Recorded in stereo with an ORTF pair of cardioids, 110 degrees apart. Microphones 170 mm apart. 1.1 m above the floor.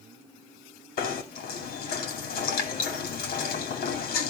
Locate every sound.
1.0 s knocking: 60° left, 2.5 m